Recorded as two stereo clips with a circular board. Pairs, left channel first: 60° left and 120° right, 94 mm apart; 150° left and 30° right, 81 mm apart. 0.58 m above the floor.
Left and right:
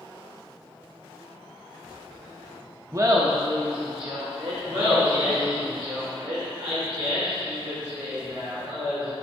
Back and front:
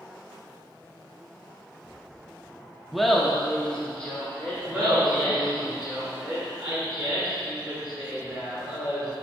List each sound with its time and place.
2.9 s laughter: 120° right, 0.6 m; by 5.7 s 140° right, 2 m
4.7 s laughter: 100° right, 1.9 m